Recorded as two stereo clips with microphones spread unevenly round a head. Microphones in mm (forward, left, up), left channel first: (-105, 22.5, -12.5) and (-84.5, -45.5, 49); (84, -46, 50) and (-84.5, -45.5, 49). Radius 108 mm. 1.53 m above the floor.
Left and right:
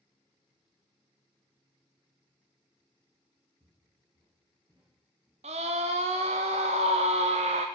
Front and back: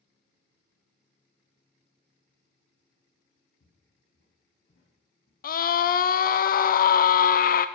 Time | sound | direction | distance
3.6 | footsteps | 35° right | 5 m
5.4 | a scream | 30° right | 0.6 m